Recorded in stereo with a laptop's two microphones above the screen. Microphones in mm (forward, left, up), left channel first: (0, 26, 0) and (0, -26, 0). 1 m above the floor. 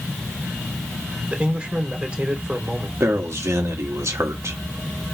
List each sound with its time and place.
1.3 s a man speaking: 20° right (ahead or behind), 2.5 m
3.0 s a man speaking: 70° right (ahead or behind), 1.5 m